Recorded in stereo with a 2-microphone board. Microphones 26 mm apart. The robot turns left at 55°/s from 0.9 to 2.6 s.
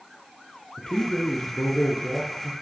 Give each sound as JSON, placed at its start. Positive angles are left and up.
{"t": 0.8, "sound": "a man speaking", "azimuth_deg": 140, "distance_m": 2.5}